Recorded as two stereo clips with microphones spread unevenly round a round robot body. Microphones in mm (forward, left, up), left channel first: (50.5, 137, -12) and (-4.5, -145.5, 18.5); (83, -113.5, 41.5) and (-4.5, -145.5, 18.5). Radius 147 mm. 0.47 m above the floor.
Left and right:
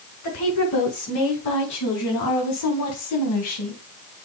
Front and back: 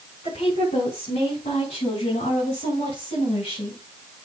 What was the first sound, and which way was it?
A woman speaking, 50° left.